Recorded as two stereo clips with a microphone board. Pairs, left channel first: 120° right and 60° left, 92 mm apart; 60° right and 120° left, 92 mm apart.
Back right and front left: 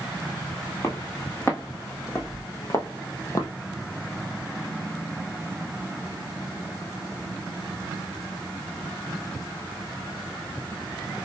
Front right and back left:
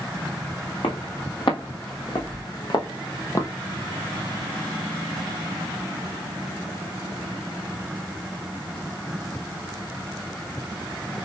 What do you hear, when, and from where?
0.8 s footsteps: 60° right, 1.9 m; by 3.5 s 95° right, 0.9 m